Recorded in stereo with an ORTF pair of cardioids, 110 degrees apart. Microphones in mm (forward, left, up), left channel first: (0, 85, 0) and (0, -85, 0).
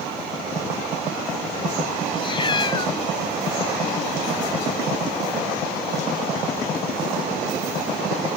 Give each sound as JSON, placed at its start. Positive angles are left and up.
{"t": 2.2, "sound": "a cat meowing", "azimuth_deg": 30}